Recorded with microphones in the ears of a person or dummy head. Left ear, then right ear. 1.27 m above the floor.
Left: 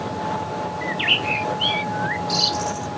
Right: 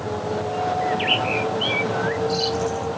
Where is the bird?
20° left (ahead or behind).